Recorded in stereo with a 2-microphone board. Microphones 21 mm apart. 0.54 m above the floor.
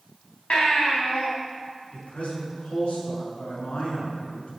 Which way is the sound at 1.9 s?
80° left.